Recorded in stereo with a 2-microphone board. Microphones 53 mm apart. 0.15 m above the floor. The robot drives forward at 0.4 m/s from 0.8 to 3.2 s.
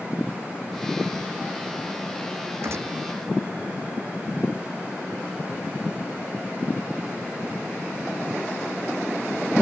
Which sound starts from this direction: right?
A gunshot, at 2.6 s.